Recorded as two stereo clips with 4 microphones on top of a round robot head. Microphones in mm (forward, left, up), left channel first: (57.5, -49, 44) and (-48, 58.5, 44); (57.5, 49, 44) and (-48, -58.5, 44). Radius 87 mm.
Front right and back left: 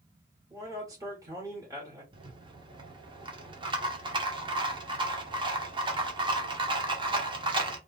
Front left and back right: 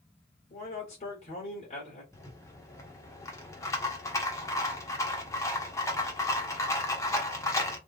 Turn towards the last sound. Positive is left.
turn(degrees=105)